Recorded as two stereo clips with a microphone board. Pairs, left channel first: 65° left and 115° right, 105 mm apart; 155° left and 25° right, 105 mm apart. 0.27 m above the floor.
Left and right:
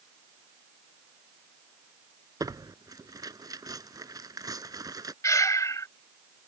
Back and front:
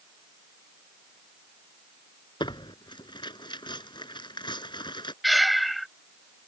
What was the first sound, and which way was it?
Tearing paper, 165° right.